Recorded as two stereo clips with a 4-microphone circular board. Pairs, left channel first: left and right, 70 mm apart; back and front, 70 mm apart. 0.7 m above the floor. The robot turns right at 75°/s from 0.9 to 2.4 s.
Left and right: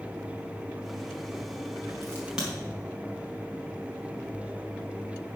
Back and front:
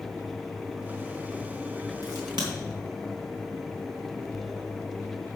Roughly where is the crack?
Ahead right.